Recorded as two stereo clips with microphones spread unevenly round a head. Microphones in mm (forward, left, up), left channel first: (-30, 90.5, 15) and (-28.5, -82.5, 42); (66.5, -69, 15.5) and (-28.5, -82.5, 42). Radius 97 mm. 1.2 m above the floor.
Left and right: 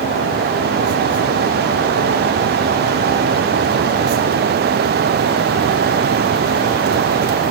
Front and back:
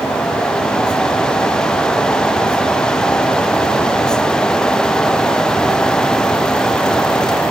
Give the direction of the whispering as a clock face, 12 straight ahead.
No whispering in this recording.